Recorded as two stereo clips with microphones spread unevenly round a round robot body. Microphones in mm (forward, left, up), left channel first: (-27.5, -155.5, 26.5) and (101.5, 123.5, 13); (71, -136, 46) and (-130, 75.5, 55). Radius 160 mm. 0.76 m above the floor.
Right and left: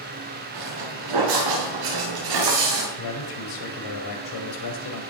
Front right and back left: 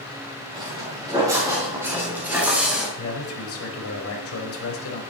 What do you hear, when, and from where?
0.5 s footsteps: 55° left, 8.5 m; by 2.9 s 45° left, 7 m
3.0 s a man speaking: 90° right, 5 m